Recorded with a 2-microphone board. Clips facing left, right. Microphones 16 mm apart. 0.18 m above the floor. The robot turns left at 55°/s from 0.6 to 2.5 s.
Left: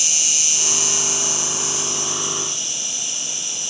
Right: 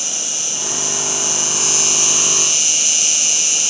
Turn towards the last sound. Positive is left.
turn(degrees=-80)